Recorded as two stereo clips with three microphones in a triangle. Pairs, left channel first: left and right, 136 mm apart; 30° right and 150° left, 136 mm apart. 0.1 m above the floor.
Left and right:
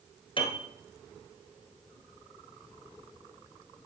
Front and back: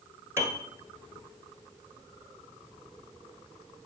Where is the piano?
95° left, 1.3 m.